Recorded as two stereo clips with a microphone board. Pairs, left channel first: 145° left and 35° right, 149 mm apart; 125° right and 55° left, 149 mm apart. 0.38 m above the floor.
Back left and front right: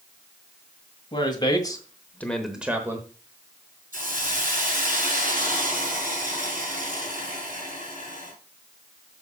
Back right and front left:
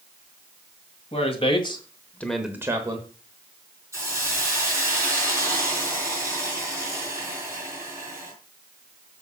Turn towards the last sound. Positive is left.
turn(degrees=-15)